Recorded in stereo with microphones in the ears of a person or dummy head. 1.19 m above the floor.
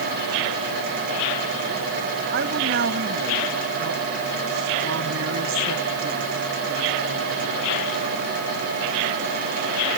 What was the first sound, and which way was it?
A woman speaking, 65° right (ahead or behind).